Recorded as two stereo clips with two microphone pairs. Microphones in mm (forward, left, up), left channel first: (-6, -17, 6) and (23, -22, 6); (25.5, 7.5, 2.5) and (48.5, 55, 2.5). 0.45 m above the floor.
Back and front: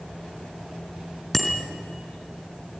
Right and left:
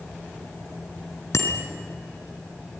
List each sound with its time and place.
1.3 s a bicycle bell: 110° right, 3.5 m